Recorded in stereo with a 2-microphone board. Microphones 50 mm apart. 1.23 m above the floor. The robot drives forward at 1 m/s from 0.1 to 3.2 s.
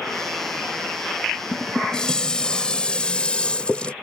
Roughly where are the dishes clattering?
Centre.